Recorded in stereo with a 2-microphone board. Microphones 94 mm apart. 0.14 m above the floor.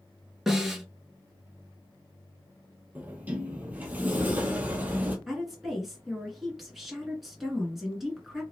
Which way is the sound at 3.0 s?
15° right (ahead or behind).